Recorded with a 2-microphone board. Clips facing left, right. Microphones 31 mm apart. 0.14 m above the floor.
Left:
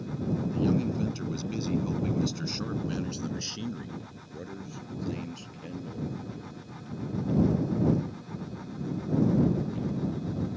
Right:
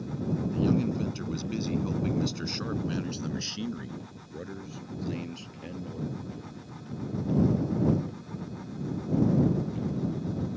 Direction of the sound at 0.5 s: 5° right (ahead or behind).